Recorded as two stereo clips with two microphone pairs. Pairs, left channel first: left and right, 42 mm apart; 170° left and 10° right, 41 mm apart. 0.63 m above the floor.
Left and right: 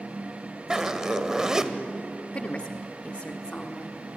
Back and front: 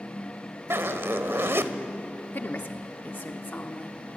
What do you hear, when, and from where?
0.7 s a zipper: 15° right, 1.4 m
2.3 s a woman speaking: 140° left, 1.1 m